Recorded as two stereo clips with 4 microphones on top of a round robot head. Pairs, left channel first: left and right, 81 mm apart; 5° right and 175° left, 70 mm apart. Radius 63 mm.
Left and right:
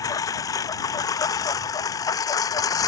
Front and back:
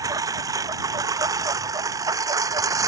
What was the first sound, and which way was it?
A lawn mower, 135° left.